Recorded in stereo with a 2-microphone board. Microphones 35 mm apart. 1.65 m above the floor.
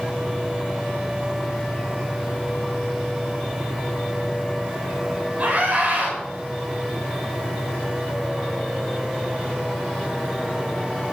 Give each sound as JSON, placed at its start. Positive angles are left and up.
{"t": 5.4, "sound": "a scream", "side_deg": -30, "distance_m": 6.0}